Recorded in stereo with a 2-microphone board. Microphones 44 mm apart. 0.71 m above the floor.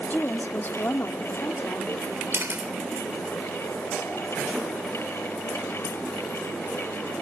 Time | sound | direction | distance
0.1 | a woman speaking | 45° left (ahead or behind) | 1.3 m
2.3 | a camera shutter | 60° right (ahead or behind) | 3 m